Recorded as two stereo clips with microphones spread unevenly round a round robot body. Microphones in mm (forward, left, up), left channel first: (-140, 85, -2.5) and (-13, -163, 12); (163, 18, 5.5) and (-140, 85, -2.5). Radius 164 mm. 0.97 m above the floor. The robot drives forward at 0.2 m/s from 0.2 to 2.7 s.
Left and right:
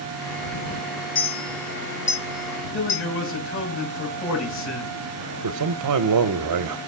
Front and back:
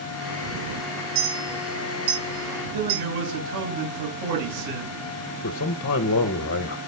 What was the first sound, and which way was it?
A clink, 160° left.